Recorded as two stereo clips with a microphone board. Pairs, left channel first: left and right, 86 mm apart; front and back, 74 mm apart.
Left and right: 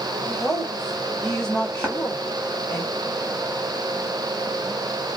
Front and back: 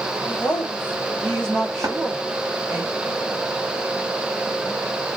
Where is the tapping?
155° right, 1.6 m.